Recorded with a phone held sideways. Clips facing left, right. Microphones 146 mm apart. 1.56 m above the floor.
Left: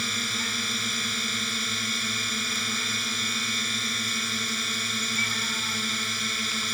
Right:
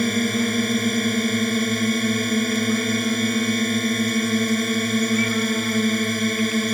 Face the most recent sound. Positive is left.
turn(degrees=-55)  # may be behind; listen again after turning